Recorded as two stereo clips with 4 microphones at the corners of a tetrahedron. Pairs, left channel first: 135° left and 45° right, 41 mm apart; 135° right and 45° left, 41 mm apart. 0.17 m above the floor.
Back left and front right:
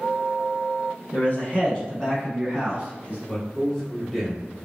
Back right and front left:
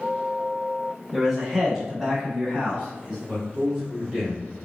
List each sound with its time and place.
1.1 s a man speaking: 130° left, 1.6 m; by 3.2 s 20° right, 1.4 m
3.3 s a man speaking: 65° left, 1.6 m